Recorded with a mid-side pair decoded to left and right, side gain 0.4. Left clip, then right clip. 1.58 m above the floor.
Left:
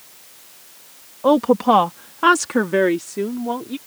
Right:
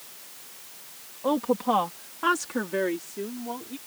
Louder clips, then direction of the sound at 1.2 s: Left 10 dB; 65° left.